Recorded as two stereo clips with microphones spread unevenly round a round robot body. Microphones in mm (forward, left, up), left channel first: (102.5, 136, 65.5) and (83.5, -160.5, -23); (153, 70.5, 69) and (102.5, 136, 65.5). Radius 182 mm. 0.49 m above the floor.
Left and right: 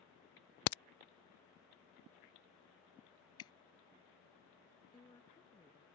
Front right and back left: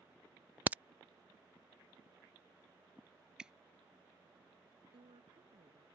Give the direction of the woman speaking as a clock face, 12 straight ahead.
6 o'clock.